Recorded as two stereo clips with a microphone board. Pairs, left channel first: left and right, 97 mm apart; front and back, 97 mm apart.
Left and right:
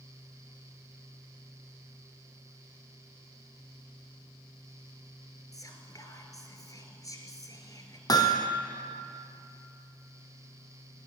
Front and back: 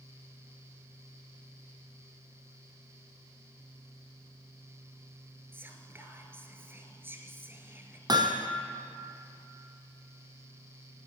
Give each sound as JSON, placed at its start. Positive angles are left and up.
{"t": 5.5, "sound": "whispering", "azimuth_deg": 120, "distance_m": 1.5}
{"t": 8.1, "sound": "hammering", "azimuth_deg": 135, "distance_m": 1.1}